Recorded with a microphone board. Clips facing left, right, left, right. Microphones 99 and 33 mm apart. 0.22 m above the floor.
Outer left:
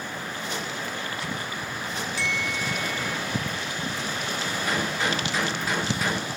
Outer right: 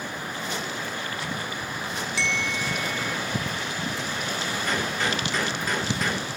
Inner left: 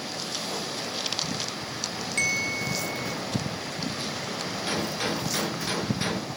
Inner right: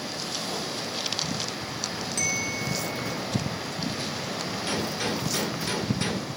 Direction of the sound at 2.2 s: 40° left (ahead or behind).